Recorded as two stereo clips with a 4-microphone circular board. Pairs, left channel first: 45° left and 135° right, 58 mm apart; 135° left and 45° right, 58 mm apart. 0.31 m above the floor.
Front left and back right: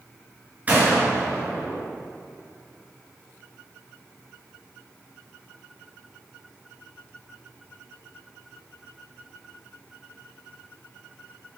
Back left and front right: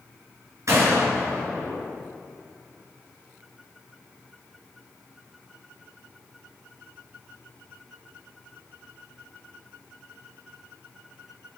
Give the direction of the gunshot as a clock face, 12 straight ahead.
2 o'clock.